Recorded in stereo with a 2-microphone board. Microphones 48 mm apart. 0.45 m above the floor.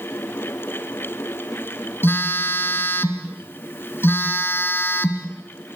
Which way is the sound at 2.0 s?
55° left (ahead or behind).